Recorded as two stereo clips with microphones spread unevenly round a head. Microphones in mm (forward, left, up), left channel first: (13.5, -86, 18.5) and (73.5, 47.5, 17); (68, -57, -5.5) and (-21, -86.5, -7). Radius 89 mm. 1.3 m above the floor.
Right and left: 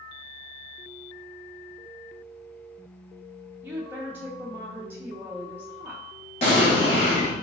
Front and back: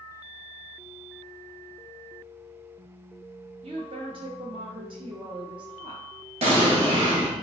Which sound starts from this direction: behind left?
A woman speaking, at 3.6 s.